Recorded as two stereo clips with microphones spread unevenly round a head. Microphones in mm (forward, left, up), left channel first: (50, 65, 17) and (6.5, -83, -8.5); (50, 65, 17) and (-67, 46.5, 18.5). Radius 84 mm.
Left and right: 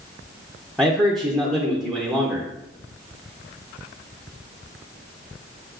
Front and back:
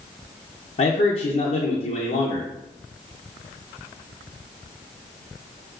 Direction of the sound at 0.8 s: 20° right.